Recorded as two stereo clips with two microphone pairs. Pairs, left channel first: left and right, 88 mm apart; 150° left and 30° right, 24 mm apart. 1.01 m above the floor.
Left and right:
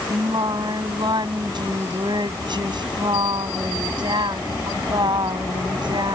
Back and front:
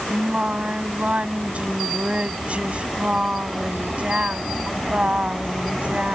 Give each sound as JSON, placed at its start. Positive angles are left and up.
{"t": 0.1, "sound": "singing", "azimuth_deg": -60}